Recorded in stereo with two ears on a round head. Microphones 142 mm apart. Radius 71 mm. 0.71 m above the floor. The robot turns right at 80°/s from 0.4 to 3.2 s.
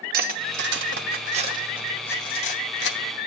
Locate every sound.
0.1 s cutlery clinking: 60° right (ahead or behind), 0.8 m; by 3.0 s 85° left, 0.8 m